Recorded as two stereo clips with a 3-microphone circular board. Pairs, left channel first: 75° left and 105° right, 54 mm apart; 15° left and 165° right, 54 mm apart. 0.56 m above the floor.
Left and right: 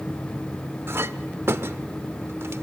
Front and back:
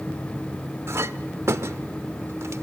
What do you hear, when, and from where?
0.9 s a clink: 140° right, 0.6 m